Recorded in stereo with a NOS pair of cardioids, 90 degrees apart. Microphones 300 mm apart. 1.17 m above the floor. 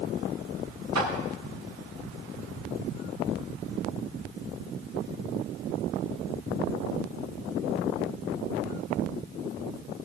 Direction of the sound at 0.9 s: 60° right.